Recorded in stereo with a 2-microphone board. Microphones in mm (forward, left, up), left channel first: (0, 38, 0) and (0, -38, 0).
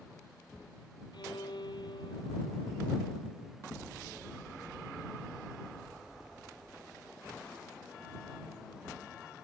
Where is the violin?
80° left.